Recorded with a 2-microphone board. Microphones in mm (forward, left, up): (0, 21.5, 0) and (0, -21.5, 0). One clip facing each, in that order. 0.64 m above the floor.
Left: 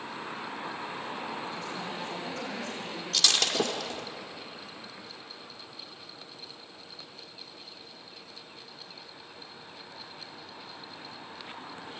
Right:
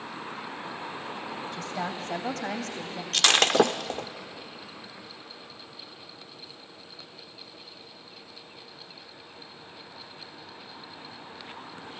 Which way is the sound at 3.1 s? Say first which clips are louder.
Right 7 dB; 55° right (ahead or behind).